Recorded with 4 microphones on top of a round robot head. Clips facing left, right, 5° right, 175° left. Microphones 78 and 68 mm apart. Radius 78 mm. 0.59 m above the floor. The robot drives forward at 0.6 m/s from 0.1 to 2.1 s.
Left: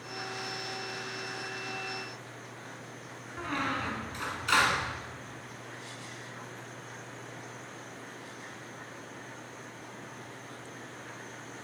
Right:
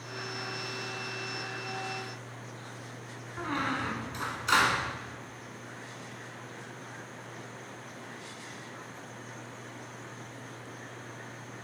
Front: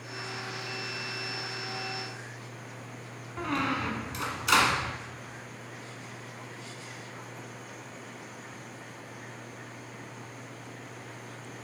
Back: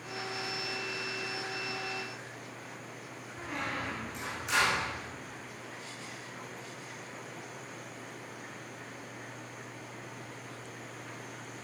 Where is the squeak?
15° right, 0.8 m.